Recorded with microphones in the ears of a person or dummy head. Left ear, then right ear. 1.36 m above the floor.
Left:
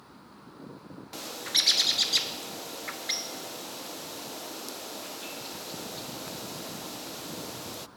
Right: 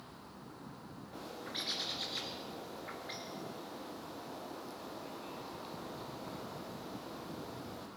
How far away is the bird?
About 0.6 m.